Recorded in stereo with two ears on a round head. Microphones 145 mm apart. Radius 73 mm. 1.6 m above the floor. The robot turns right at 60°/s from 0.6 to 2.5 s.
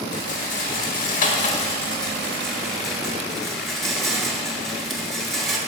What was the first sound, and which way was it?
A rattle, 65° left.